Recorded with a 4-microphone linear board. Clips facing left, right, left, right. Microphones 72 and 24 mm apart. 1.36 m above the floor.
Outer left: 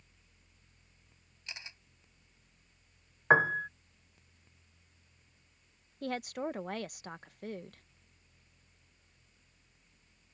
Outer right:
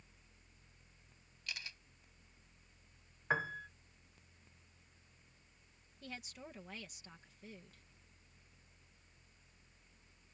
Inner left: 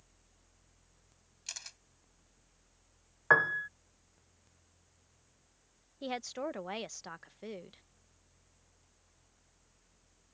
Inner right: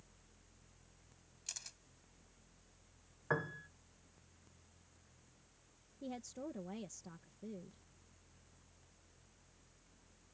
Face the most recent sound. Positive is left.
turn(degrees=65)  # may be behind; listen again after turning